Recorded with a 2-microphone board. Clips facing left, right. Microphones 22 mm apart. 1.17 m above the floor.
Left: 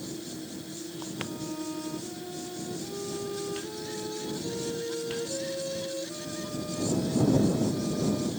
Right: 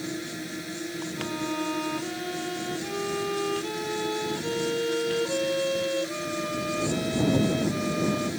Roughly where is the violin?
Right.